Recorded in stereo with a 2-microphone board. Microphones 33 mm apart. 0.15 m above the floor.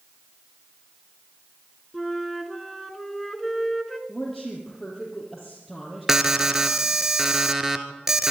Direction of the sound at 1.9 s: 5° left (ahead or behind).